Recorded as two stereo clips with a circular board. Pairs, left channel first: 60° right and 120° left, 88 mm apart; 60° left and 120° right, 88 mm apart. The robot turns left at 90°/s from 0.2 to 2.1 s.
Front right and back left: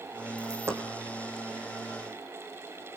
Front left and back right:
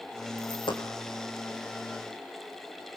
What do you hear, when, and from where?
0.4 s a dropped coin: 90° left, 4.5 m; by 0.8 s 50° left, 4.5 m